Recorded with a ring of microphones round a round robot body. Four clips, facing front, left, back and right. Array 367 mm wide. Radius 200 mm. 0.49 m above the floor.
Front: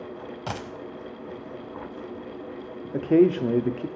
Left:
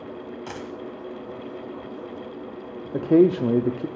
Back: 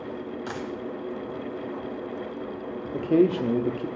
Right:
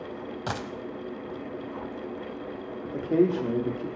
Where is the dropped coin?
35° right, 1.0 m.